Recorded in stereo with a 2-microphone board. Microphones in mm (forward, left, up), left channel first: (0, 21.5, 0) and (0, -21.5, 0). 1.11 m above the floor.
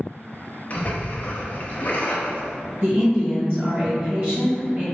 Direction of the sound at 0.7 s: 45° left (ahead or behind).